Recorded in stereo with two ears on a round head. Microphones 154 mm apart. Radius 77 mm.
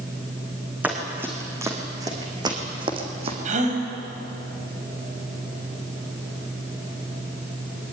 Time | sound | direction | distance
0.8 | running footsteps | 10° right (ahead or behind) | 4.5 m
3.5 | a gasp | 45° right (ahead or behind) | 5.5 m